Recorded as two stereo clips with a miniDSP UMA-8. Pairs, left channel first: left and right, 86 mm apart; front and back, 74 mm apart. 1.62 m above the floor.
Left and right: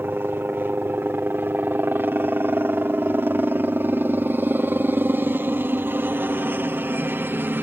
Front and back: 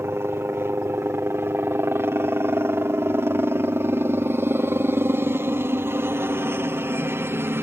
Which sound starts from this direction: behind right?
A helicopter, at 0.0 s.